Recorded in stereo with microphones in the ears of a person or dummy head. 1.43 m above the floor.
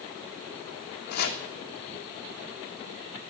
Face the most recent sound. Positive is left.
turn(degrees=50)  # may be behind; listen again after turning